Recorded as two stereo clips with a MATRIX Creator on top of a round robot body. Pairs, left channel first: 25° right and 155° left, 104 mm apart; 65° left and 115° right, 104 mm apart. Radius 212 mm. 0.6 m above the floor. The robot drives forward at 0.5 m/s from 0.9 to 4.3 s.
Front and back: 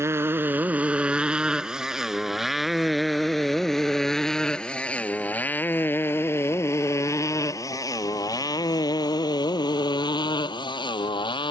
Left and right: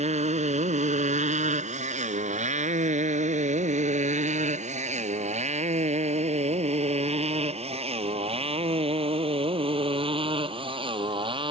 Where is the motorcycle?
135° right; by 11.5 s 70° right.